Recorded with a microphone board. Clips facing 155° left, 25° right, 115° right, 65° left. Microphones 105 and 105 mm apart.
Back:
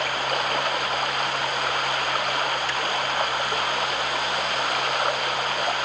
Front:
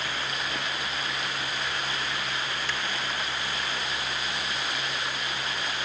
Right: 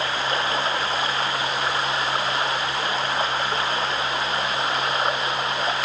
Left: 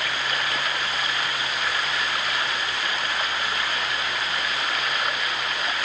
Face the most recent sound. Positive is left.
turn(degrees=-170)